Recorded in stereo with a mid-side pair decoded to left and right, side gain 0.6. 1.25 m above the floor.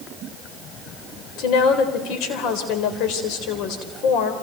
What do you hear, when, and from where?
1.4 s a woman speaking: 70° left, 4 m